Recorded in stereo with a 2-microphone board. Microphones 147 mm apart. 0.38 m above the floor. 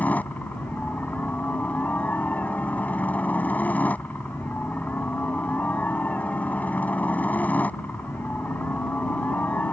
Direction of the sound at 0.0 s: 10° left (ahead or behind).